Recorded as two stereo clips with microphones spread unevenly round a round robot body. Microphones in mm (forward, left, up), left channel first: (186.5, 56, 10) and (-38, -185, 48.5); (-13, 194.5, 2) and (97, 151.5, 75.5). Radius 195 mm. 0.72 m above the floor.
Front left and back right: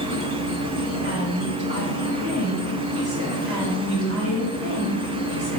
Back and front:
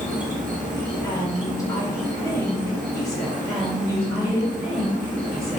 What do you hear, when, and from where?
0.0 s an insect: 10° left, 1.4 m
1.0 s a woman speaking: 175° left, 1.7 m
3.5 s a woman speaking: 75° right, 1.5 m